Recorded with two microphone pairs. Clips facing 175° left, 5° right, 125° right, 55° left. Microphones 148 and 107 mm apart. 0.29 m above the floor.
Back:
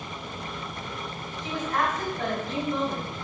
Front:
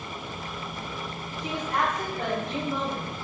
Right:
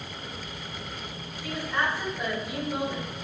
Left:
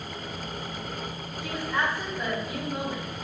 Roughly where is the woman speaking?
Ahead left.